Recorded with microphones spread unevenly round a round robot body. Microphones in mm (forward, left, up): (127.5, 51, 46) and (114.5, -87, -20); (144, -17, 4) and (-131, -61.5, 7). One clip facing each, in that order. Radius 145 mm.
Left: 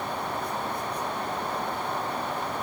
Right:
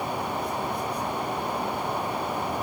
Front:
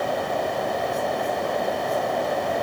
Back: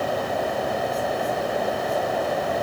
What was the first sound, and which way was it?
Only background noise.